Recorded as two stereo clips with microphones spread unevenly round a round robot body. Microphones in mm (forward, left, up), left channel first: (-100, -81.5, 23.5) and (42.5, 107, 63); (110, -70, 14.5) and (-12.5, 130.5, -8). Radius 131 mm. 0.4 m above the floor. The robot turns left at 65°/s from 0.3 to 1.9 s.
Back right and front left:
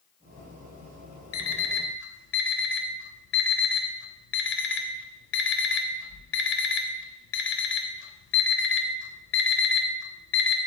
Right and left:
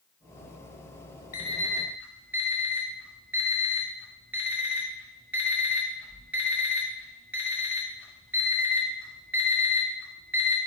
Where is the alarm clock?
120° right, 0.9 m; by 10.6 s 155° right, 0.9 m.